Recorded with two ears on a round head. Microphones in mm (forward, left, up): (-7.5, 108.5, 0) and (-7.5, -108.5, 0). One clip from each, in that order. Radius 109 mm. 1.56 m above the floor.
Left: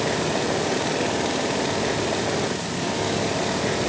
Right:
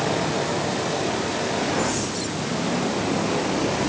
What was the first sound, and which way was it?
Only background noise.